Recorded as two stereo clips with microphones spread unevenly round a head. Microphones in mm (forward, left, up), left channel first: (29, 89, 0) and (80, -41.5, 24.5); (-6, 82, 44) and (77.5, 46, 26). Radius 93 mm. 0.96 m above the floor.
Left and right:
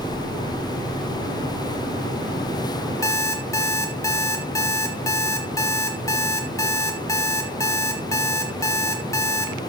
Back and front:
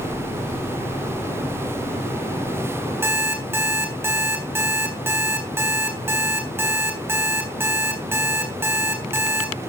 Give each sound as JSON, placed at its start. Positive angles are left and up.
{"t": 3.0, "sound": "an alarm clock", "azimuth_deg": 40, "distance_m": 3.0}